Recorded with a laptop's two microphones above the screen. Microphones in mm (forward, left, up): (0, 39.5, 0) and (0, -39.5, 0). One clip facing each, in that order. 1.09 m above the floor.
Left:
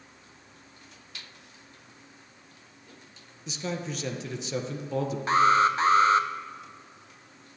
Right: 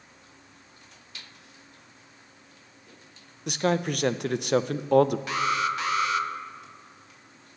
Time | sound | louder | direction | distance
3.5 | a man speaking | right 8 dB | 65° right (ahead or behind) | 0.7 m
5.3 | an alarm | left 6 dB | 35° left (ahead or behind) | 0.9 m